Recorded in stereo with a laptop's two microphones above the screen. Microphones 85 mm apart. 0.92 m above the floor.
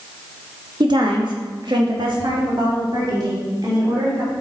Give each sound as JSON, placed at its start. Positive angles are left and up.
{"t": 0.8, "sound": "a woman speaking", "side_deg": -60, "distance_m": 1.5}